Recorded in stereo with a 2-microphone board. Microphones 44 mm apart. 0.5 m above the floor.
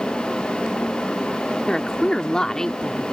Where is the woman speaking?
15° left (ahead or behind); by 3.1 s 10° left (ahead or behind).